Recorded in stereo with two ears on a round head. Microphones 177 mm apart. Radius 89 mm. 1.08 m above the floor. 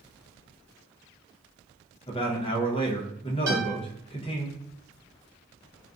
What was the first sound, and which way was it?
A man speaking, 30° left (ahead or behind).